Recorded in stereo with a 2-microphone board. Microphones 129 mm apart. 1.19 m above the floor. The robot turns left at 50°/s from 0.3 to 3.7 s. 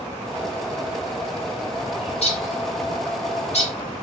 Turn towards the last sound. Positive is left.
turn(degrees=50)  # may be behind; listen again after turning